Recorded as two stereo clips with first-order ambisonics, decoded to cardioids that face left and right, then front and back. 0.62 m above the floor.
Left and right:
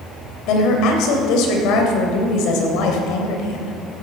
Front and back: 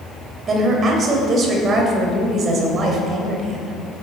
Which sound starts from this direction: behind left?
A woman speaking, at 0.5 s.